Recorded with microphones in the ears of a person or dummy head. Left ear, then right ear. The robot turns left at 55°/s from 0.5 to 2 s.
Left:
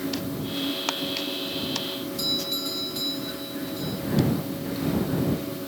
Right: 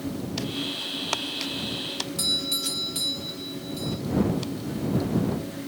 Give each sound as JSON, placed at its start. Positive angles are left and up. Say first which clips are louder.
{"t": 2.2, "sound": "a doorbell", "louder": "right 2 dB", "side_deg": -15}